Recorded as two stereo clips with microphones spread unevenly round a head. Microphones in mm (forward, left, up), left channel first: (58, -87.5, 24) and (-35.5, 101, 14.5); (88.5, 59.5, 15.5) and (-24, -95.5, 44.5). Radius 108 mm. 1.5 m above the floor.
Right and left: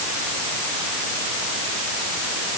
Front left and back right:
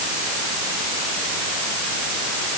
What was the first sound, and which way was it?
Only background noise.